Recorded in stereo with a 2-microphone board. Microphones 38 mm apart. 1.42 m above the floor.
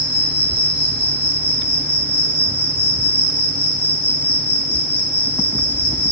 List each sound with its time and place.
0.0 s an insect: 70° right (ahead or behind), 2 m